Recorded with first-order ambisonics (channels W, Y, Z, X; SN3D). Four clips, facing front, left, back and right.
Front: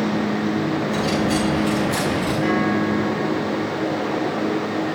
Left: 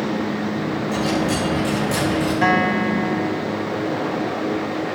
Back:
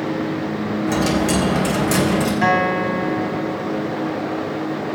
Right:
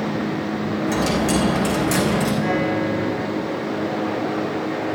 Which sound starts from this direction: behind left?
A guitar, at 2.4 s.